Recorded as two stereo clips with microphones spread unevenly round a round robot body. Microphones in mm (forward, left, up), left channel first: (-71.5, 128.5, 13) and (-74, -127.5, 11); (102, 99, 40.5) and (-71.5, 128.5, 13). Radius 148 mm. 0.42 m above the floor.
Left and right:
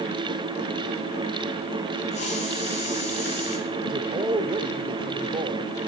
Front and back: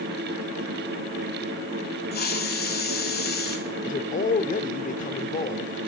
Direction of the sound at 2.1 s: 20° left.